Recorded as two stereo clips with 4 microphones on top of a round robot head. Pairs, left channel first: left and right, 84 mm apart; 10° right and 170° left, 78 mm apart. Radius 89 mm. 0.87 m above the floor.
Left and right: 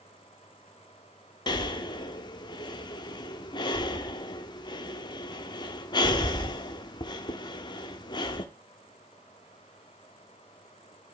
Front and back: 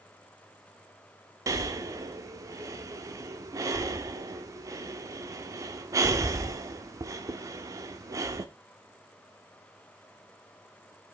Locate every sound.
1.5 s breathing: 125° left, 0.7 m